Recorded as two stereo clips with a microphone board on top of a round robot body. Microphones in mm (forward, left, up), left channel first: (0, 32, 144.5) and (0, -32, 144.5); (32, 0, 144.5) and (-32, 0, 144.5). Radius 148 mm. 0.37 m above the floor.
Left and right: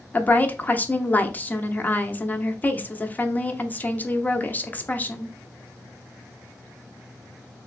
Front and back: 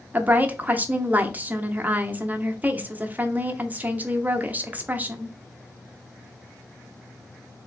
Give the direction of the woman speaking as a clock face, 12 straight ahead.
8 o'clock.